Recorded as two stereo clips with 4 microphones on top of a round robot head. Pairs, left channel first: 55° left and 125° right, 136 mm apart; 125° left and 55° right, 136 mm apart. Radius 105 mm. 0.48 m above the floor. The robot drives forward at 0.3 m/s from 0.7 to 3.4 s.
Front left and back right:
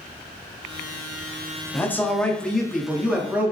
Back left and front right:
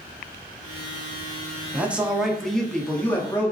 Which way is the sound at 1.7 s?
5° left.